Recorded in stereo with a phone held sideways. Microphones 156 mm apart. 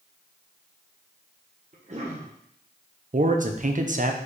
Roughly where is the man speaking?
Right.